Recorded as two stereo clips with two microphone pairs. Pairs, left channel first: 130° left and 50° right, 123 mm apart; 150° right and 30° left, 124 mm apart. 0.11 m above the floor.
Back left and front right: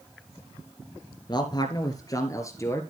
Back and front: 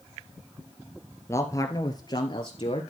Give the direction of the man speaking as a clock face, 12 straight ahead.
7 o'clock.